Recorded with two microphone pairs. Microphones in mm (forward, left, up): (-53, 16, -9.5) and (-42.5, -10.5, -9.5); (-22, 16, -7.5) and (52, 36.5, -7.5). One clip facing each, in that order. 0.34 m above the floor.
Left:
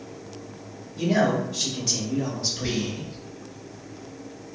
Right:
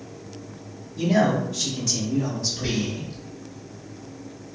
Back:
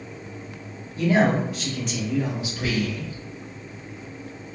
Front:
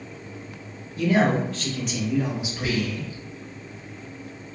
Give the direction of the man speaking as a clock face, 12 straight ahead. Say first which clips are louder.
Right 1 dB, back 1 dB; 6 o'clock.